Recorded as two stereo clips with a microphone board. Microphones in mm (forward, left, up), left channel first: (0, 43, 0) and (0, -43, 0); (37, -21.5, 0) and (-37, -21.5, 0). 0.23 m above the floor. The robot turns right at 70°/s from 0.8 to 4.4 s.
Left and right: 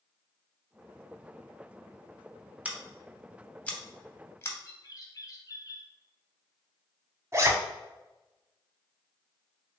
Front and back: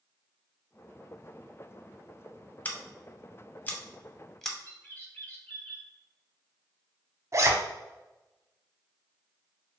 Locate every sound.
2.6 s scissors: 40° right, 0.5 m; by 4.5 s 85° left, 0.5 m
4.6 s a bird: 60° left, 0.7 m
7.3 s a zipper: 140° right, 0.5 m